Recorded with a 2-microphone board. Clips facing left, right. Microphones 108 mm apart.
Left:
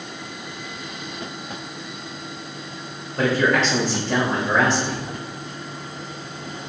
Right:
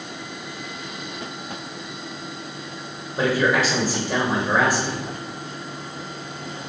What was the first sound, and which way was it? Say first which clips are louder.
A man speaking: left 1 dB; 10° right (ahead or behind).